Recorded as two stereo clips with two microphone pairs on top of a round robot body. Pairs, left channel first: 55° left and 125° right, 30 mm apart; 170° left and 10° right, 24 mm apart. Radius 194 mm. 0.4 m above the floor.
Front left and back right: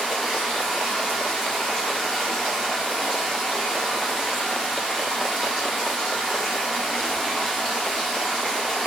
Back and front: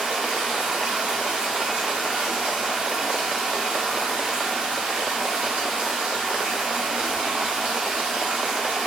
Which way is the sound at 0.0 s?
Straight ahead.